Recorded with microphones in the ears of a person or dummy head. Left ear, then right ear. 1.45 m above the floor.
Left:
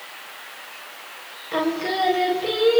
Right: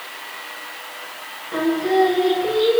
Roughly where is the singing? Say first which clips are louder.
Right 4 dB; left.